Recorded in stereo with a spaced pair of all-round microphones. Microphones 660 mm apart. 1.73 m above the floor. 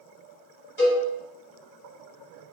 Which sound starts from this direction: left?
A cowbell, at 0.8 s.